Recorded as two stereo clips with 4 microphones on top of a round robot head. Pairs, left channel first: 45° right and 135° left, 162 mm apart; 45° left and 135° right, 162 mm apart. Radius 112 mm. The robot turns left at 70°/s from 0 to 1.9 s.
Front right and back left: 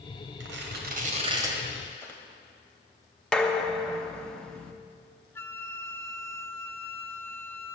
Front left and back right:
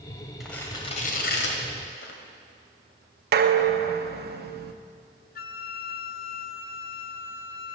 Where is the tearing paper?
135° left, 1.5 m; by 2.2 s 30° left, 1.5 m.